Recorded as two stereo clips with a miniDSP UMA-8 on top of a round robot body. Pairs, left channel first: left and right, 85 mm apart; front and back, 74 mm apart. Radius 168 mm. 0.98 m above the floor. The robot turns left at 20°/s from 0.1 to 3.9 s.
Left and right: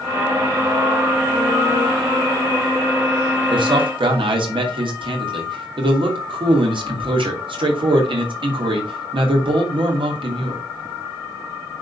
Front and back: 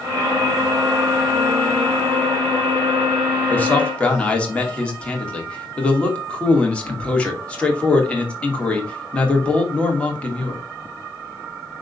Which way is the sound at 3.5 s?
65° right.